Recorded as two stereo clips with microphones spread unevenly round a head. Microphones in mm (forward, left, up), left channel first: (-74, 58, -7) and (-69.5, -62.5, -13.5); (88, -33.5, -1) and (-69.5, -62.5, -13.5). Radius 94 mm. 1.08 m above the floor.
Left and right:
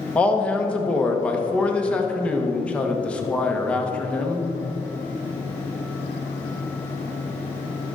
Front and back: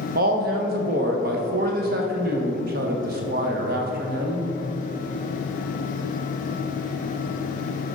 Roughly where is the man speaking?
Behind.